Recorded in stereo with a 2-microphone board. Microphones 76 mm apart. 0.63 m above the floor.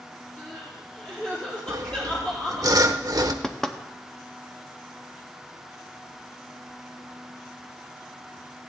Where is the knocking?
5° left (ahead or behind), 0.7 m.